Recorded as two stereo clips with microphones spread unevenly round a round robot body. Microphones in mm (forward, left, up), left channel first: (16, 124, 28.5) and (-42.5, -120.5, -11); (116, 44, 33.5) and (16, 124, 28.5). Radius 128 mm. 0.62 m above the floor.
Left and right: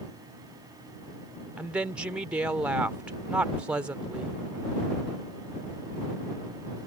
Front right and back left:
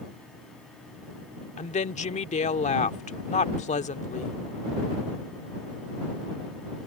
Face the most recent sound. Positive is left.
turn(degrees=-20)